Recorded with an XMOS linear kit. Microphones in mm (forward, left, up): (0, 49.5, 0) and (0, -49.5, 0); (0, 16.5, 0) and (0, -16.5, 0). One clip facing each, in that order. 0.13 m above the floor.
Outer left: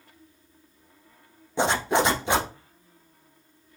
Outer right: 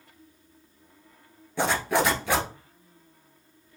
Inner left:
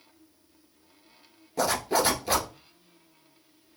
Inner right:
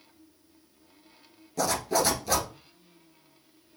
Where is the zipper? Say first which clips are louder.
Outer left 2 dB, inner left 1 dB; 20° left (ahead or behind), 1.1 m.